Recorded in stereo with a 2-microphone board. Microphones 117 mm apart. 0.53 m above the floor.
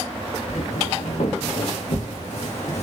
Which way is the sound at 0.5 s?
70° left (ahead or behind).